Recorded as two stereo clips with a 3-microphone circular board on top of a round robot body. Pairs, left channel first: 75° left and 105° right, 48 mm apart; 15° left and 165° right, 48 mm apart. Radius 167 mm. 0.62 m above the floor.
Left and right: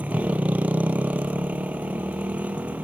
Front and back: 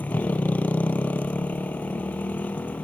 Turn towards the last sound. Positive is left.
turn(degrees=-45)